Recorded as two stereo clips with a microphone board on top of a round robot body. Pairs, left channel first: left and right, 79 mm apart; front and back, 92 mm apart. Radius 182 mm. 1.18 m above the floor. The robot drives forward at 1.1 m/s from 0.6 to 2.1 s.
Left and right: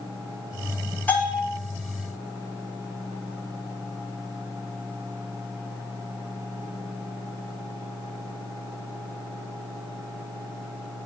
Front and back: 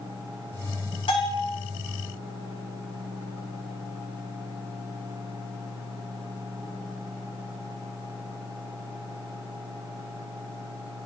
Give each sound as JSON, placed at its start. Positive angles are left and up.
{"t": 1.1, "sound": "a bell", "azimuth_deg": 20, "distance_m": 7.5}